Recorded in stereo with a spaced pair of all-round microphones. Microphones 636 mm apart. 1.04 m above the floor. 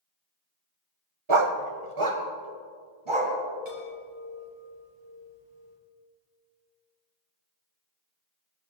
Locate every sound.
1.3 s a dog barking: 50° right (ahead or behind), 1.0 m
3.6 s a chime: 80° right, 4.5 m